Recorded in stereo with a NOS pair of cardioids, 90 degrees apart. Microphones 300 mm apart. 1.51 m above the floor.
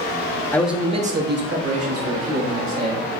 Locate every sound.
0.5 s a man speaking: 5° left, 0.9 m; by 3.0 s 70° right, 2.5 m